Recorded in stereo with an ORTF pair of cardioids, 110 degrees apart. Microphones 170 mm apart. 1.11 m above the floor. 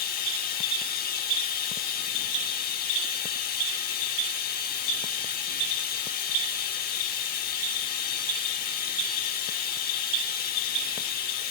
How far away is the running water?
About 0.8 m.